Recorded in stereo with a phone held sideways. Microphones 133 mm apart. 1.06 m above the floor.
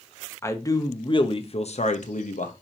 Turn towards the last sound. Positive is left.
turn(degrees=75)  # may be behind; listen again after turning